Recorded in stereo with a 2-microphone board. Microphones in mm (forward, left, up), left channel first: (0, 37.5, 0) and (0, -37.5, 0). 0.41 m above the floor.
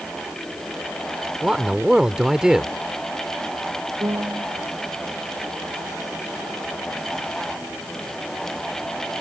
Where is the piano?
70° right (ahead or behind).